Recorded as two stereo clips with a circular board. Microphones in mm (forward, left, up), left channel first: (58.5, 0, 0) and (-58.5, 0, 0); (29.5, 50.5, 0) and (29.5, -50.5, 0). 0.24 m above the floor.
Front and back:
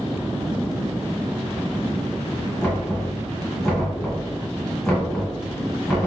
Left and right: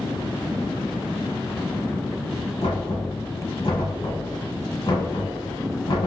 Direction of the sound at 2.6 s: 85° left.